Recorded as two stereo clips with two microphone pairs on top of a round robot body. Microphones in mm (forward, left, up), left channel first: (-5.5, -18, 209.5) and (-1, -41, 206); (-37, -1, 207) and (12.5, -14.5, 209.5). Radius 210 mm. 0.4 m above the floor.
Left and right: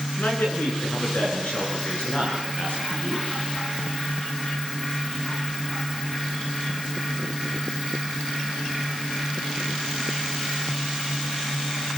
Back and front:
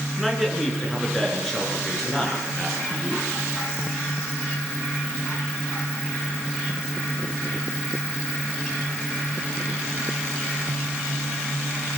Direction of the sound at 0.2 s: 70° left.